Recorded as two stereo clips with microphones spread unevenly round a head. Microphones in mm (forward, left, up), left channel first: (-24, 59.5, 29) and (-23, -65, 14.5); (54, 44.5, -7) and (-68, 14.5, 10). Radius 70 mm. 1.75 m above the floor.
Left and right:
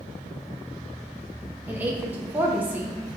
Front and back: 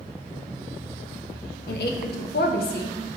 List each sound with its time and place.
1.7 s a woman speaking: 10° right, 0.5 m